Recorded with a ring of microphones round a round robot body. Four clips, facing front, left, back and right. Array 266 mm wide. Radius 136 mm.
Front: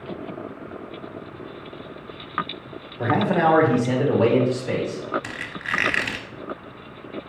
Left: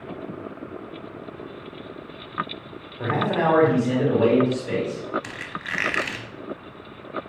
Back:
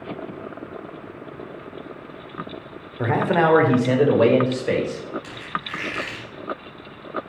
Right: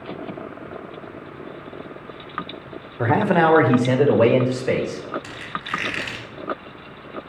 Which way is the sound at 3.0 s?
105° right.